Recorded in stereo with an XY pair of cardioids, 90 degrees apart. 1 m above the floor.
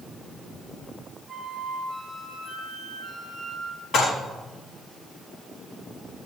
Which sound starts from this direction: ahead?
A flute, at 1.3 s.